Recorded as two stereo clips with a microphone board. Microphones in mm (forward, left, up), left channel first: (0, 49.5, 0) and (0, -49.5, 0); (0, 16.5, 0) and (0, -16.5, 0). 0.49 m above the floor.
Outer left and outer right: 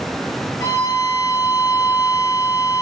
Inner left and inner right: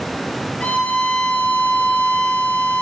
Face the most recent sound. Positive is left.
turn(degrees=40)  # may be behind; listen again after turning